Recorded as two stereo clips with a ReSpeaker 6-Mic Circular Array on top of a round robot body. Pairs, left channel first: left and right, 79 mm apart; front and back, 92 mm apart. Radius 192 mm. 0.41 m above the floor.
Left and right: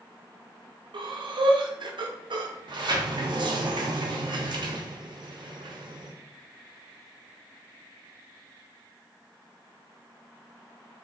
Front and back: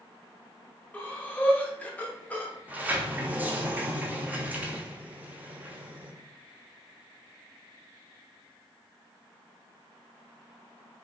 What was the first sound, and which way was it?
Breathing, 75° right.